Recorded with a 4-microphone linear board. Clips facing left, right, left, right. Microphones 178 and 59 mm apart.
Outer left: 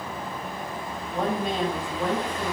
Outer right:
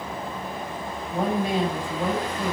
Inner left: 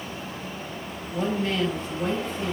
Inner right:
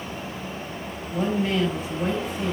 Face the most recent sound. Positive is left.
turn(degrees=-10)  # may be behind; listen again after turning